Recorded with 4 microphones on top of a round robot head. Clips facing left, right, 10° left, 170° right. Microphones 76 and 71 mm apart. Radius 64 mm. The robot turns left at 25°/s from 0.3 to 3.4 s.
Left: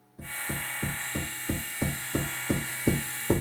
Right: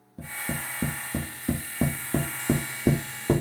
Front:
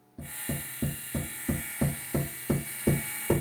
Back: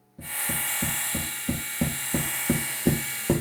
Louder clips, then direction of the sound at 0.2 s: Right 2 dB, back 4 dB; 60° right.